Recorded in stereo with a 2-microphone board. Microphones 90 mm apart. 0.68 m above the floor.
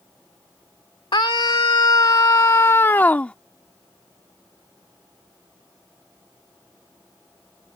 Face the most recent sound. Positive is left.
turn(degrees=15)  # may be behind; listen again after turning